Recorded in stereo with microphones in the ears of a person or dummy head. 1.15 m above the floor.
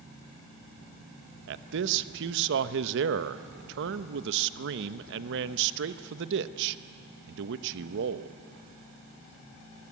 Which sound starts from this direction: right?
A man speaking, at 1.5 s.